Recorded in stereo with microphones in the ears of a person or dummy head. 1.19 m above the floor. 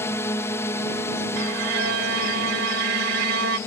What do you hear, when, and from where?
0.0 s a drone: 15° left (ahead or behind)
1.4 s a violin: 65° right (ahead or behind)